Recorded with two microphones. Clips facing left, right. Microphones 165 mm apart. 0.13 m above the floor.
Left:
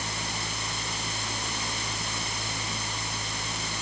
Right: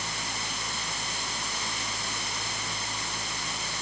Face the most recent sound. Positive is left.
No sound to turn to.